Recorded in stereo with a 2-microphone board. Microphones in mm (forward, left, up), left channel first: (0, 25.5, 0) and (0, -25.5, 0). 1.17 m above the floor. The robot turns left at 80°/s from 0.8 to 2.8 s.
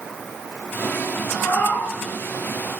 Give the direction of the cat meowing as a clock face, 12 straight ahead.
8 o'clock.